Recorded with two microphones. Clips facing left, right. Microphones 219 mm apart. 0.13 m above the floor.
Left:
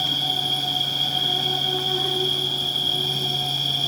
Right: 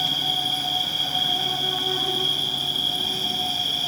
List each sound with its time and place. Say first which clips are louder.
0.0 s an insect: left 1 dB; 40° left (ahead or behind), 6 m